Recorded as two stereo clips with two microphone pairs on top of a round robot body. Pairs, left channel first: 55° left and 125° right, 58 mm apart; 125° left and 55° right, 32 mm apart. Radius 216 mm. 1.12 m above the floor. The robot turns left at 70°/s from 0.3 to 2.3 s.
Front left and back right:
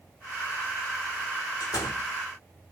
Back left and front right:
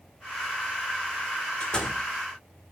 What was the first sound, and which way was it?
A door slam, 75° left.